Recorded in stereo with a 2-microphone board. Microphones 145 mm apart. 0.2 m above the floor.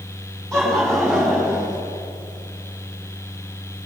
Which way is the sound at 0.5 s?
Centre (ahead or behind).